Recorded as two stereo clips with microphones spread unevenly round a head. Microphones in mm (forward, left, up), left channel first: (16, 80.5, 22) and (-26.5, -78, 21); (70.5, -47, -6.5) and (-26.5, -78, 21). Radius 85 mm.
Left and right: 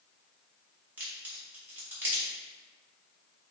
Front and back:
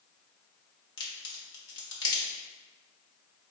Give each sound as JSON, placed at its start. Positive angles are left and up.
{"t": 1.0, "sound": "a crack", "azimuth_deg": -25, "distance_m": 1.4}